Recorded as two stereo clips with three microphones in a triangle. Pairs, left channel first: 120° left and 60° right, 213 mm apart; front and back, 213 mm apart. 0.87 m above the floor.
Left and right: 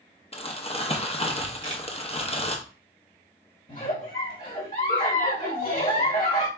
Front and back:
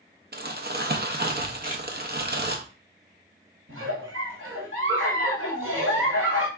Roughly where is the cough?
No cough in this recording.